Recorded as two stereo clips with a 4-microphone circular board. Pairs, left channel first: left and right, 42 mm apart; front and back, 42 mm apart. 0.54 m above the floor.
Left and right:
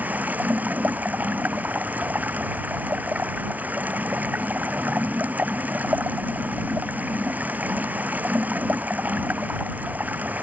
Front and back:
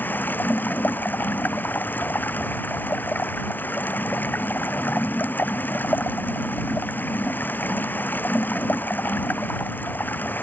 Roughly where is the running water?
Ahead right.